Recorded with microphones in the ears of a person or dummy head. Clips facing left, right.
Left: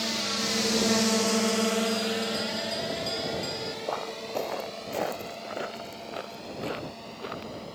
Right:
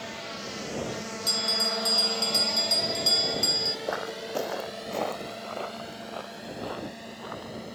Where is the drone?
60° left (ahead or behind); by 7.8 s 20° right (ahead or behind).